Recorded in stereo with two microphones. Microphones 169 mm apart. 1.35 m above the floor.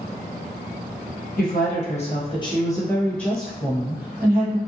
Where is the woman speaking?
60° left (ahead or behind), 1.1 m; by 4.6 s 15° right (ahead or behind), 1.6 m.